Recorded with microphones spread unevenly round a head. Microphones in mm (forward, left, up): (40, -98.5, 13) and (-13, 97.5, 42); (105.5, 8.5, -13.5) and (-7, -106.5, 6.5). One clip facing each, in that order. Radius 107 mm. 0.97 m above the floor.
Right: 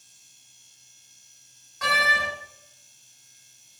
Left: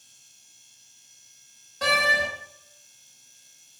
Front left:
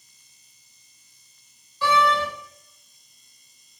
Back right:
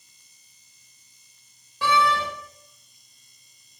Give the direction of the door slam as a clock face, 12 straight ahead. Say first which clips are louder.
Left 3 dB, front left 1 dB; 6 o'clock.